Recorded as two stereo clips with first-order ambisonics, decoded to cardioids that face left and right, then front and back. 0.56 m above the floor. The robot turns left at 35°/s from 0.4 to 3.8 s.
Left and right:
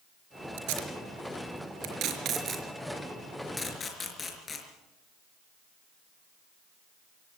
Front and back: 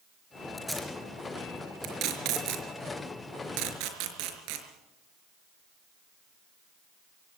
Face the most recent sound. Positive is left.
turn(degrees=160)